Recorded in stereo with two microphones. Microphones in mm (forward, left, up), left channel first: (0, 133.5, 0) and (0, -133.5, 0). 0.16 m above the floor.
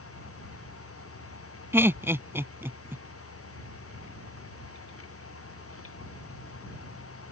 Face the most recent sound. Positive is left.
turn(degrees=-10)  # may be behind; listen again after turning